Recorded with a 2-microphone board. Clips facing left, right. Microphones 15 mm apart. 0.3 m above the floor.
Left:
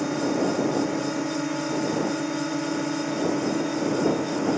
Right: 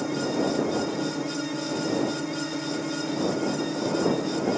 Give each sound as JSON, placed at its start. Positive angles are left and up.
{"t": 0.0, "sound": "a drone", "side_deg": 20}